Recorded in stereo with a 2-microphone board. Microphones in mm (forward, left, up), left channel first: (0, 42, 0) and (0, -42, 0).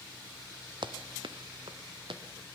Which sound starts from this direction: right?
Running footsteps, at 0.8 s.